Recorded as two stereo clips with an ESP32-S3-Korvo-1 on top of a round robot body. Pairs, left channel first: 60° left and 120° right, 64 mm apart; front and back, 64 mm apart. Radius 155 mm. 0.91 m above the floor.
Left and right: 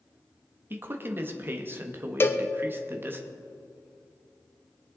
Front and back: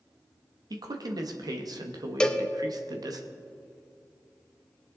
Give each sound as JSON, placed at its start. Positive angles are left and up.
{"t": 0.7, "sound": "a man speaking", "azimuth_deg": -175, "distance_m": 1.2}
{"t": 2.2, "sound": "a cowbell", "azimuth_deg": 70, "distance_m": 1.1}